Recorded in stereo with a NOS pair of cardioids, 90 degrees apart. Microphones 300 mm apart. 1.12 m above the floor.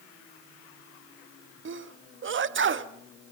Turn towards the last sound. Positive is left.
turn(degrees=-40)